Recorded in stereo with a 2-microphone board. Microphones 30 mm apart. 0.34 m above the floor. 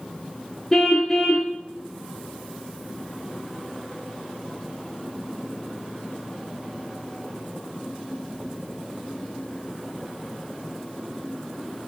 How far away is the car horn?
About 3 m.